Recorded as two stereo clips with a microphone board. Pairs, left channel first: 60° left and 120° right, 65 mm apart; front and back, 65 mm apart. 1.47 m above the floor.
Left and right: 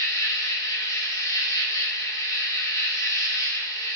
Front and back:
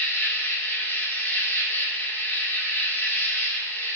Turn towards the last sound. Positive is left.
turn(degrees=50)